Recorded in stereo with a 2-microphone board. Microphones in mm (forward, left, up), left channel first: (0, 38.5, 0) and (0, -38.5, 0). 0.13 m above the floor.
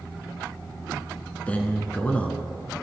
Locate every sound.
1.5 s a man speaking: 15° left (ahead or behind), 1.3 m